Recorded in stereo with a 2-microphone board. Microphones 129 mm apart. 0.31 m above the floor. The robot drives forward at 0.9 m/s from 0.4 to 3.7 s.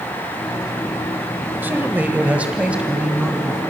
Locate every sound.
1.6 s a man speaking: 15° right (ahead or behind), 1.0 m; by 3.6 s 5° right (ahead or behind), 2 m